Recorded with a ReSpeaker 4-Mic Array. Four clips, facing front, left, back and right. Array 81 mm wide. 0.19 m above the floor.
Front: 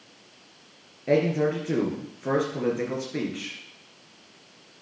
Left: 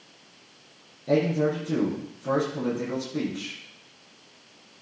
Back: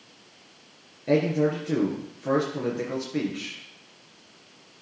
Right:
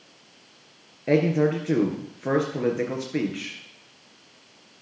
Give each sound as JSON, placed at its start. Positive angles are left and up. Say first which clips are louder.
{"t": 1.1, "sound": "a man speaking", "louder": "right 2 dB, even", "azimuth_deg": -80, "distance_m": 3.5}